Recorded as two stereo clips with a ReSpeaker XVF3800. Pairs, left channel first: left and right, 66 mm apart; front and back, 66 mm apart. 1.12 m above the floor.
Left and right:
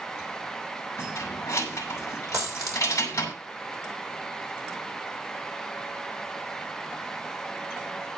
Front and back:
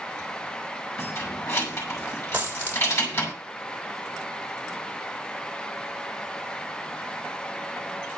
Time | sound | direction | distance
1.0 | keys jangling | 45° left | 6 m
2.3 | a dropped coin | 120° right | 4 m